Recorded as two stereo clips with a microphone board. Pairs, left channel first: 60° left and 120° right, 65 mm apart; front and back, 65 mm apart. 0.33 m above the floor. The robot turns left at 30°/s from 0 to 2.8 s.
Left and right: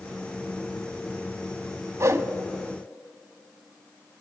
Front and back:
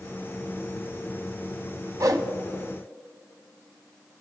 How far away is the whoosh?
About 0.9 m.